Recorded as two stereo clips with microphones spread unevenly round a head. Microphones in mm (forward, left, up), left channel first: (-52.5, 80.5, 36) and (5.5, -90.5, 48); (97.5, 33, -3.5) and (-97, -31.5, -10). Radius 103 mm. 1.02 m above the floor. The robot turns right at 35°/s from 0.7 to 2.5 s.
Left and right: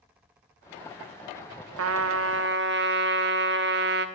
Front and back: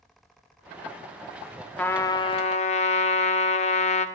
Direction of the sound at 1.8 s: 65° right.